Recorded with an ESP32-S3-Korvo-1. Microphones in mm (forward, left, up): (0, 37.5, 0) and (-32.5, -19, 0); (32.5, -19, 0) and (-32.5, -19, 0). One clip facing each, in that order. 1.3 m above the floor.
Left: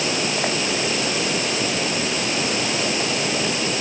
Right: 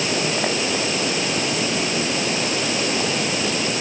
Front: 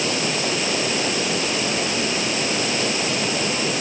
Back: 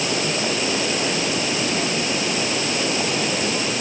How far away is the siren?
No siren in this recording.